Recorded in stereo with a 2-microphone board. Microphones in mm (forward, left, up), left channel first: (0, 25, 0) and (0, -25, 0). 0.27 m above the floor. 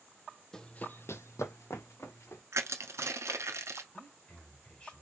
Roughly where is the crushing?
Right.